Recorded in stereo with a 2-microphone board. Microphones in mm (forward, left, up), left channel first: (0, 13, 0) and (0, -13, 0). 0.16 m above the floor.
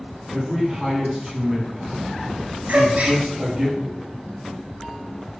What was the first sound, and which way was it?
A man speaking, 10° right (ahead or behind).